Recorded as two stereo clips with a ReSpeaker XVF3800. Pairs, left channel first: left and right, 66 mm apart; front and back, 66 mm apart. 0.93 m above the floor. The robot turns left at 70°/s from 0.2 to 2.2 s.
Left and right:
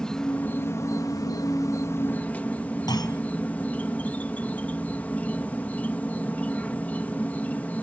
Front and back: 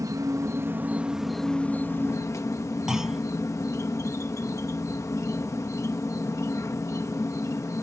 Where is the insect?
170° left; by 7.8 s 30° left.